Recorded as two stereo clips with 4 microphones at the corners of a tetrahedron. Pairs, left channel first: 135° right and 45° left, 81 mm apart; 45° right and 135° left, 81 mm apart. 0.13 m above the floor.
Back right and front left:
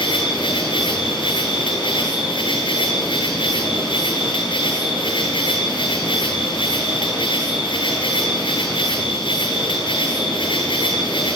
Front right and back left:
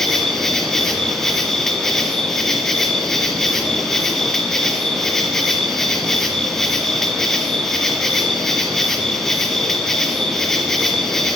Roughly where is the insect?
Behind right.